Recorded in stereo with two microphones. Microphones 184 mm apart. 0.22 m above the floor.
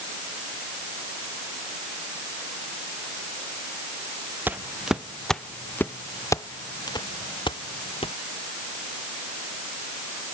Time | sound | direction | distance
4.5 | footsteps | 10° right (ahead or behind) | ?